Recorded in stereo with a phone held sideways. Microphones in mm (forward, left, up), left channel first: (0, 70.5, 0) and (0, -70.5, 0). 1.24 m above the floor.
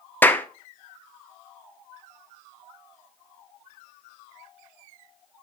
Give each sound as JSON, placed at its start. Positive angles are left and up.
{"t": 0.2, "sound": "a clap", "side_deg": 15, "distance_m": 0.7}